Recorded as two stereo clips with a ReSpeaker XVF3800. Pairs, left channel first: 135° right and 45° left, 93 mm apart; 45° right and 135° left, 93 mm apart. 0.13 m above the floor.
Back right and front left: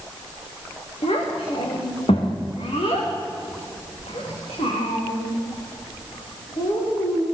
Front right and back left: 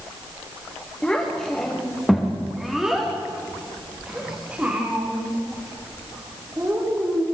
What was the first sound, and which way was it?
A child speaking, 130° right.